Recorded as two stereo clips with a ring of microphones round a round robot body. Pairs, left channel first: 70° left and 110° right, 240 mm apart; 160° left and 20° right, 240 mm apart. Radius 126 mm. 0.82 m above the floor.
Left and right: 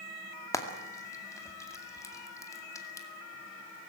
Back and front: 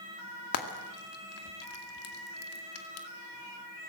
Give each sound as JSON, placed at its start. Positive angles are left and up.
{"t": 0.5, "sound": "frying", "azimuth_deg": 145, "distance_m": 2.0}